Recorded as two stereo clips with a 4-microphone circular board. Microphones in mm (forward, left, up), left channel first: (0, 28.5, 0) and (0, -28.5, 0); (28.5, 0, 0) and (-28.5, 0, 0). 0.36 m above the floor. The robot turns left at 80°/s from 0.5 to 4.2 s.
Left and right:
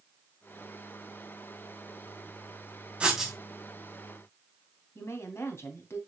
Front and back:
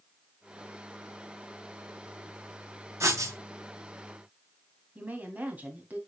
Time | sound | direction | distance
3.0 | writing | 160° right | 2.5 m
5.0 | a woman speaking | 120° left | 2.5 m